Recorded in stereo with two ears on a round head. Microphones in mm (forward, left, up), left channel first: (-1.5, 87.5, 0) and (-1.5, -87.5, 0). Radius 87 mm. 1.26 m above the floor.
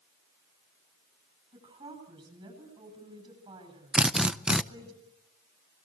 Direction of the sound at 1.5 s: 30° right (ahead or behind).